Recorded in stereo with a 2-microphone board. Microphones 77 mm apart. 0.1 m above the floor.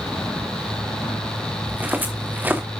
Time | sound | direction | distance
1.7 | footsteps | 25° right (ahead or behind) | 2 m